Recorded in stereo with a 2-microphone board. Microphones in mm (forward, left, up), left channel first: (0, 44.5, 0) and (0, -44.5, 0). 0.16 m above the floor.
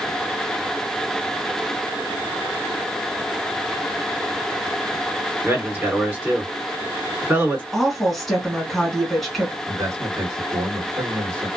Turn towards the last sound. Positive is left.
turn(degrees=-30)  # may be behind; listen again after turning